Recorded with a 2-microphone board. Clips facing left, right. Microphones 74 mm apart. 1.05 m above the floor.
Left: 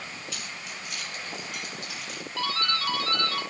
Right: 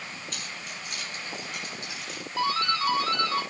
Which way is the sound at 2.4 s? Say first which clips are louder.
Right 3 dB; 20° right (ahead or behind).